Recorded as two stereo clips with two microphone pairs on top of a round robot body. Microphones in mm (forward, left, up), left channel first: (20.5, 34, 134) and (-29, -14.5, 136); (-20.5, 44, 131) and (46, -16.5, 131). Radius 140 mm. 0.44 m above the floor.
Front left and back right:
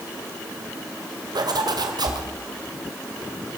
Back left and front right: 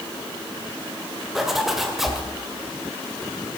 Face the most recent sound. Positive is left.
turn(degrees=-130)